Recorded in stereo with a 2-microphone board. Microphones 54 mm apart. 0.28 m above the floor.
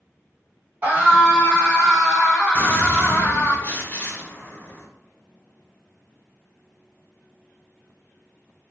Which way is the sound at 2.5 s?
30° left (ahead or behind).